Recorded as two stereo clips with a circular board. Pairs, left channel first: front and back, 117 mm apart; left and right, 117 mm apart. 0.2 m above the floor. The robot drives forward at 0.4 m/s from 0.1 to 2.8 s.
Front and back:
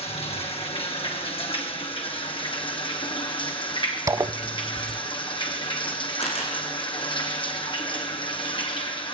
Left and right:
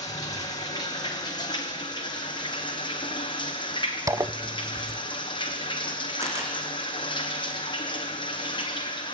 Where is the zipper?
135° right, 0.6 m.